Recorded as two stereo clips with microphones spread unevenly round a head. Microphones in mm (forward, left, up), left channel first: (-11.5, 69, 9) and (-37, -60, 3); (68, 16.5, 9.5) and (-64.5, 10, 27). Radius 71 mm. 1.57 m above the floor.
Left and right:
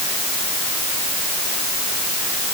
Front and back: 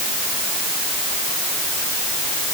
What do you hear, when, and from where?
Only background noise.